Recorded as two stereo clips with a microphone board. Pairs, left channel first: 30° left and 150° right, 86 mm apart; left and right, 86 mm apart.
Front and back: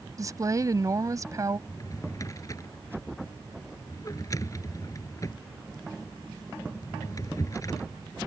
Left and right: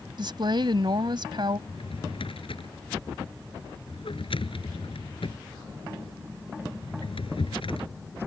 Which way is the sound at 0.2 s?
105° right.